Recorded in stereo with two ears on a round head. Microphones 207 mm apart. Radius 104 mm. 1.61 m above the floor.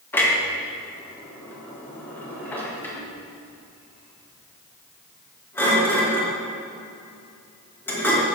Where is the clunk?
10° left (ahead or behind), 2.5 m.